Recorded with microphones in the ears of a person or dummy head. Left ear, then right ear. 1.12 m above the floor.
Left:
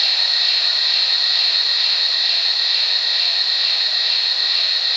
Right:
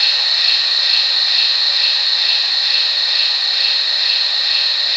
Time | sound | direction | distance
0.0 | an insect | 20° right (ahead or behind) | 0.9 m